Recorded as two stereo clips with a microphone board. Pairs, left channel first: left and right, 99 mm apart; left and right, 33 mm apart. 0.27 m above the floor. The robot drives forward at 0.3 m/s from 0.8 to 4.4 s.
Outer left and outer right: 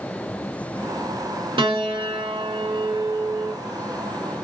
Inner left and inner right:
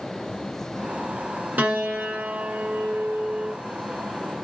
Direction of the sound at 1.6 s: 70° right (ahead or behind).